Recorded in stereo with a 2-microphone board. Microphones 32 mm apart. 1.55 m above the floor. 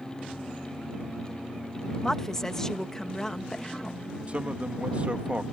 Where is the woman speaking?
15° left (ahead or behind).